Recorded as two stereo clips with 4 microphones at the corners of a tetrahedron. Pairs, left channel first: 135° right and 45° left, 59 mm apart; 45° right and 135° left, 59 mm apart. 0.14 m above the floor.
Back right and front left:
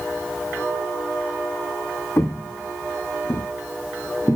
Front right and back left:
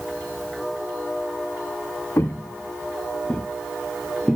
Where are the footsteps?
95° right, 0.8 m; by 4.4 s 140° right, 1.6 m.